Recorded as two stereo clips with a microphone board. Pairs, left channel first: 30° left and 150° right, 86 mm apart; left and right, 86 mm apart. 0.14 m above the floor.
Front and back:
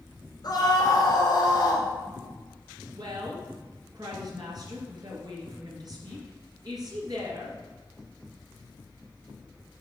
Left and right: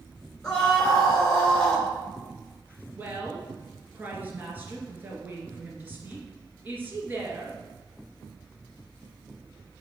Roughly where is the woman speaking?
Behind right.